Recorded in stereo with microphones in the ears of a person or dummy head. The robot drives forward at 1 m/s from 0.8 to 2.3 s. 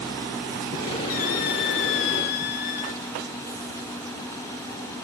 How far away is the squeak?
About 1.2 m.